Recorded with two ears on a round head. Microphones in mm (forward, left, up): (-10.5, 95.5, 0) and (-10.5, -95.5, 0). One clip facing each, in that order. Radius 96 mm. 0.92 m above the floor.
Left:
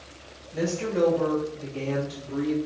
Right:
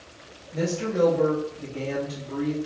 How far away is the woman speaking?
About 1.4 m.